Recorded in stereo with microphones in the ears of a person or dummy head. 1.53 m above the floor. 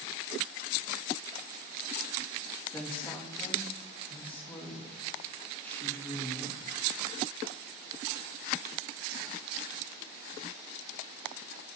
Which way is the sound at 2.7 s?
5° left (ahead or behind).